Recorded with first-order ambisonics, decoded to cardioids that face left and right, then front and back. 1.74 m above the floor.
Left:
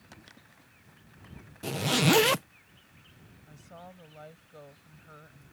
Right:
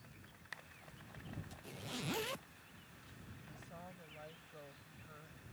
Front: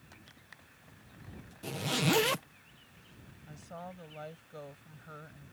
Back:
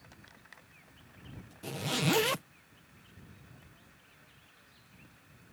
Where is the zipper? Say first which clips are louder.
Left 20 dB, even; 90° left.